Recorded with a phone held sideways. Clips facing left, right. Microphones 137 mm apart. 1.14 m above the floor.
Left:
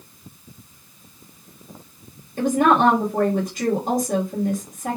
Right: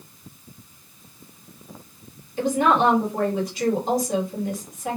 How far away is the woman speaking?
About 1.6 m.